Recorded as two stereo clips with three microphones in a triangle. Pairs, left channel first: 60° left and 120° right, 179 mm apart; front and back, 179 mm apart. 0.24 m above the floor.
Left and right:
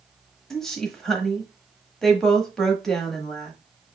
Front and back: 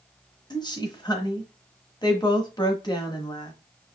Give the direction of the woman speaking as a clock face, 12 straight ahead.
1 o'clock.